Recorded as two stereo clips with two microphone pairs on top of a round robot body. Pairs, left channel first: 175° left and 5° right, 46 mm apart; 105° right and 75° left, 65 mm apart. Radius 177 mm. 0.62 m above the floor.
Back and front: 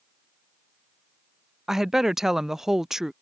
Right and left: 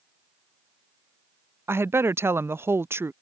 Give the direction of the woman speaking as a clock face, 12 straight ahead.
10 o'clock.